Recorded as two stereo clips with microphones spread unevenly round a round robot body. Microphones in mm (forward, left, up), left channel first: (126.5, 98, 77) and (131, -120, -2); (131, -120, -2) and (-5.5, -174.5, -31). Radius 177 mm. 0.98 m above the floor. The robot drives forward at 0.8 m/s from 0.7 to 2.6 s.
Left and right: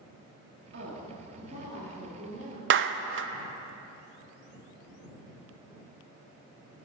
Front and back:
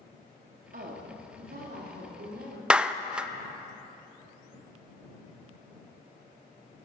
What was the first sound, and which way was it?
A woman speaking, 135° right.